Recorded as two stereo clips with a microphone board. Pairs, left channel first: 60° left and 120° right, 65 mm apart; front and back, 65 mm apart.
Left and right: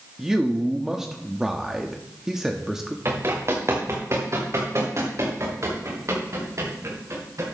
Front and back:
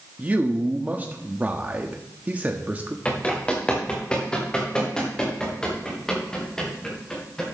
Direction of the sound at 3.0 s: 70° right.